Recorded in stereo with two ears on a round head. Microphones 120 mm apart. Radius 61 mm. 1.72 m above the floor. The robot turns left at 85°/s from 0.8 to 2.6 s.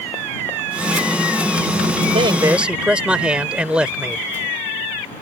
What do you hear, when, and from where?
2.1 s a man speaking: 135° right; by 4.3 s 170° right